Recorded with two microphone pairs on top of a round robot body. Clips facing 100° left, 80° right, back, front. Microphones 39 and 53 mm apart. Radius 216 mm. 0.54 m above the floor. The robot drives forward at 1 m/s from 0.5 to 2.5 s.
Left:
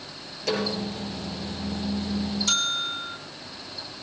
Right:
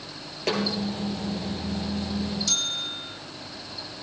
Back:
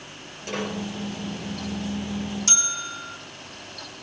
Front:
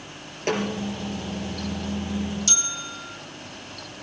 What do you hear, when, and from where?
0.5 s a snare drum: 30° right, 7 m
2.5 s a bell: 140° left, 2.0 m